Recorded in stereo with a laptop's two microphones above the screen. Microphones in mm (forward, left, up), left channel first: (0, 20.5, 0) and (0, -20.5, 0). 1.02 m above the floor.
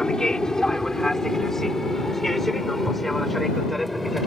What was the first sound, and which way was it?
An aircraft, 15° left (ahead or behind).